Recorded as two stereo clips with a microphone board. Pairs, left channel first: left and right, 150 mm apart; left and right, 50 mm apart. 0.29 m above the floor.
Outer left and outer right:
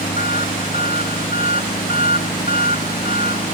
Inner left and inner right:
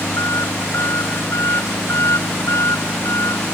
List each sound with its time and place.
0.0 s an engine running: 70° left (ahead or behind)